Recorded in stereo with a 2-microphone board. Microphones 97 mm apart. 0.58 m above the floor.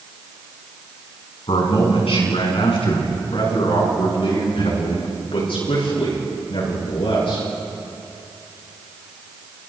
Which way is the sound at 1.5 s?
75° left (ahead or behind).